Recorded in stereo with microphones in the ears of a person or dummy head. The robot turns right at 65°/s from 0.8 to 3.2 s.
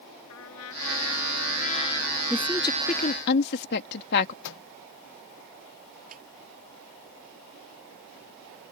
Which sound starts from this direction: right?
A snare drum, at 6.1 s.